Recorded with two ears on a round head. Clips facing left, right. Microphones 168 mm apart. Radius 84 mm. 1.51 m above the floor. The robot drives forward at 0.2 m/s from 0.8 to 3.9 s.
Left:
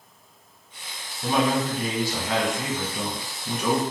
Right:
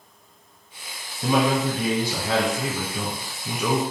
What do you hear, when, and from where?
1.2 s a man speaking: 75° right (ahead or behind), 1.1 m; by 3.8 s 70° right (ahead or behind), 1.2 m